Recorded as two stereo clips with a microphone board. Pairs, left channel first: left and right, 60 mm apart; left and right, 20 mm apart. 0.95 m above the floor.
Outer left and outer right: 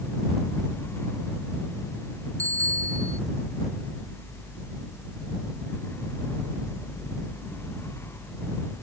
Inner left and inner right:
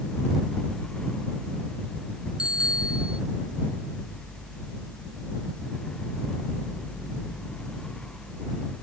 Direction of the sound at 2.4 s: 55° right (ahead or behind).